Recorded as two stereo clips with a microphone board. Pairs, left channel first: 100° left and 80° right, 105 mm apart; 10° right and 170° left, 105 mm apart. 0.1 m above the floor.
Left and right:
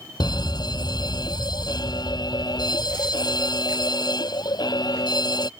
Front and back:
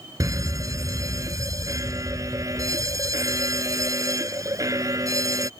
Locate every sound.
0.2 s a fire alarm: 125° left